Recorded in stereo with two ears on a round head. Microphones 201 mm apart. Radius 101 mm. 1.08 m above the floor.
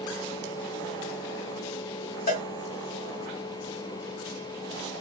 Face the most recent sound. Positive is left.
turn(degrees=40)  # may be behind; listen again after turning